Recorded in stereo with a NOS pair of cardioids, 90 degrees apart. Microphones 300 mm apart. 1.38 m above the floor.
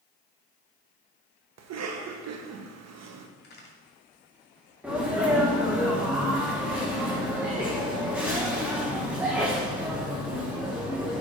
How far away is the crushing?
I don't hear crushing.